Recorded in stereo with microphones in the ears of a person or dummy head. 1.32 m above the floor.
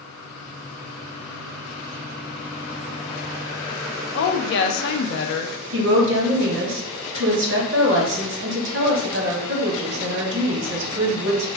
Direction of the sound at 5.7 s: 60° right (ahead or behind).